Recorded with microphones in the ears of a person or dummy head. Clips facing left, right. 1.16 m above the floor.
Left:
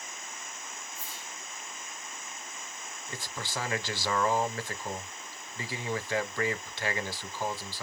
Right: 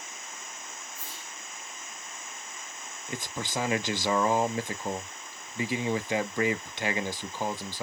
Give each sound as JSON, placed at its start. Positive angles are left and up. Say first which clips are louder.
{"t": 0.9, "sound": "a whoosh", "louder": "even", "side_deg": -50, "distance_m": 3.0}
{"t": 3.1, "sound": "a man speaking", "louder": "right 5 dB", "side_deg": -15, "distance_m": 0.6}